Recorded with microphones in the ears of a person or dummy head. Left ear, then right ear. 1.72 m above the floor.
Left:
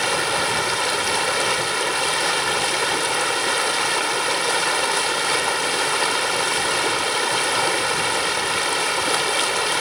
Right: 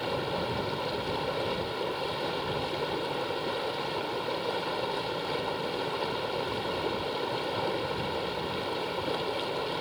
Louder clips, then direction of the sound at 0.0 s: Left 11 dB; 60° left (ahead or behind).